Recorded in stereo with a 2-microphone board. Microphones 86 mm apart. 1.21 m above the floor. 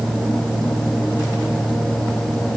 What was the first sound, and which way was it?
Only background noise.